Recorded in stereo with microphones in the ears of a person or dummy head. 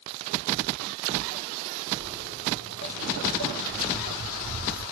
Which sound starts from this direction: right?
Footsteps, at 1.9 s.